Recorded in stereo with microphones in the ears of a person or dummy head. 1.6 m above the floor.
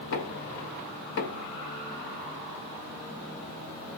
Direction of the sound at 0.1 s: 55° left (ahead or behind).